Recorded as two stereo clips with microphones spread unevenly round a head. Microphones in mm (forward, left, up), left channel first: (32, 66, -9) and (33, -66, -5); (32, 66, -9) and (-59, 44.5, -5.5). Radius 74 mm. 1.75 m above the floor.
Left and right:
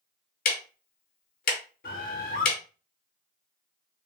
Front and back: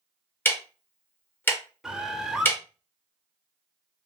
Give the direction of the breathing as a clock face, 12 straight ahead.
I don't hear breathing.